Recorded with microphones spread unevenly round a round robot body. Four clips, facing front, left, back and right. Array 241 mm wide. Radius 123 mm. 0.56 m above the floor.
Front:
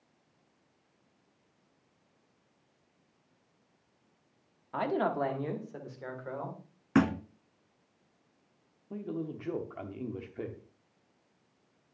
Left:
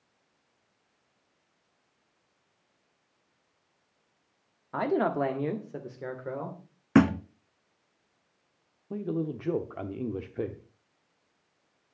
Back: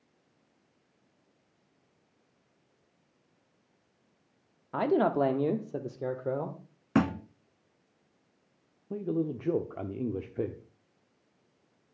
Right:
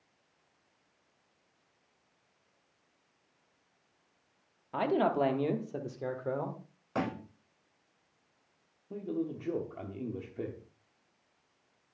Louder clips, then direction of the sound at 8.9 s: Left 4 dB, back 6 dB; 145° left.